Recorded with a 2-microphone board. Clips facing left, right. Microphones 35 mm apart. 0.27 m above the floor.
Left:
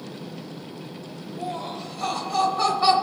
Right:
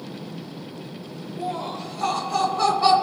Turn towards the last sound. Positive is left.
turn(degrees=10)  # may be behind; listen again after turning